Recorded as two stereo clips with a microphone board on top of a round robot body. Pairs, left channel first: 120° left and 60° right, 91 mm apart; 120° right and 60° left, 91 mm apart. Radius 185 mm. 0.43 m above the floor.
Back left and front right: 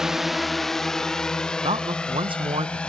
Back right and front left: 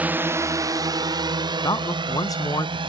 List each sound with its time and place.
0.0 s a drone: 15° left; by 2.9 s 45° left
1.6 s a man speaking: 75° right